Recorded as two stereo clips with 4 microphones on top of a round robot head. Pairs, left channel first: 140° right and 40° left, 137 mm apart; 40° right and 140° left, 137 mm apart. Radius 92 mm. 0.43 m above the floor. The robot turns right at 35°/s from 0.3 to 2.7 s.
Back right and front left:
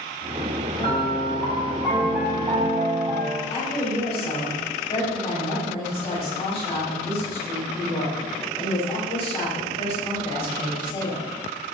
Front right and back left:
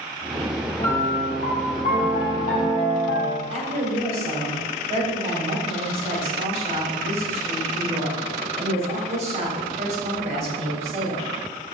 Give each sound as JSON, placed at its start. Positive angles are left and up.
{"t": 0.8, "sound": "a piano", "azimuth_deg": -75, "distance_m": 3.0}
{"t": 3.5, "sound": "a woman speaking", "azimuth_deg": 175, "distance_m": 3.0}